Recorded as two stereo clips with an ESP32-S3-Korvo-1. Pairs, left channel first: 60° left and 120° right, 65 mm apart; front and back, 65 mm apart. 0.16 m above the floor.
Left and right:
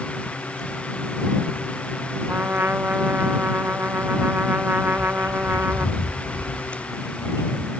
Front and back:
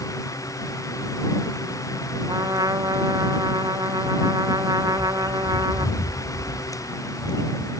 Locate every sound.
2.3 s a trumpet: straight behind
4.9 s a bird: 35° left